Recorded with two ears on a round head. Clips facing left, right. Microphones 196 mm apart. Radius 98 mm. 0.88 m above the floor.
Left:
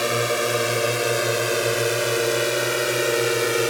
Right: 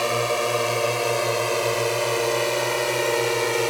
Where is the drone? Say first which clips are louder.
Left 1 dB; 20° left (ahead or behind); by 3.7 s 15° left (ahead or behind).